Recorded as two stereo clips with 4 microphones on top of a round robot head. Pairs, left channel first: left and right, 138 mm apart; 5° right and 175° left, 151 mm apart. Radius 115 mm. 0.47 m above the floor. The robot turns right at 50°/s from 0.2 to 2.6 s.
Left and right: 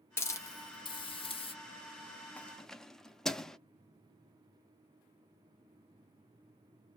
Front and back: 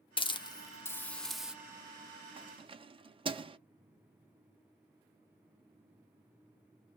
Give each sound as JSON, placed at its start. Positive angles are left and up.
{"t": 0.2, "sound": "a hiss", "azimuth_deg": 30, "distance_m": 0.8}
{"t": 2.4, "sound": "keys jangling", "azimuth_deg": 160, "distance_m": 0.6}